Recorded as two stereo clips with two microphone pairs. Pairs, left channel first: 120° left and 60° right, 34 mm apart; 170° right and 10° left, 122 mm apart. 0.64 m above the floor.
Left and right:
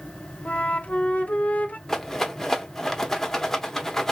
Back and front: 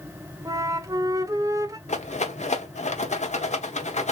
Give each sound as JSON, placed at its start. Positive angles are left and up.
{"t": 0.5, "sound": "a flute", "azimuth_deg": 70, "distance_m": 0.6}
{"t": 1.9, "sound": "a rattle", "azimuth_deg": -165, "distance_m": 0.9}